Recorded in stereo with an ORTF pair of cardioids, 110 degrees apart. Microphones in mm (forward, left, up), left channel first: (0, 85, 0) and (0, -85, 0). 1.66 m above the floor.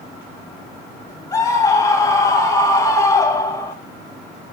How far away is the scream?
About 3 m.